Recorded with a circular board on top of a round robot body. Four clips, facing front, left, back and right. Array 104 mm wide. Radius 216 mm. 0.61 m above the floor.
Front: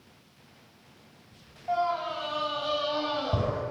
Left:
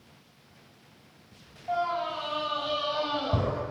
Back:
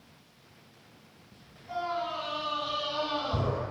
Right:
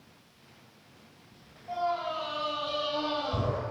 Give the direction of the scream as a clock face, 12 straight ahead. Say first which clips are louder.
Left 2 dB, front 5 dB; 11 o'clock.